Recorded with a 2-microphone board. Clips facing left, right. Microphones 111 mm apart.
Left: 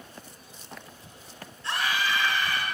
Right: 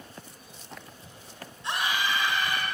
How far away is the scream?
About 1.0 m.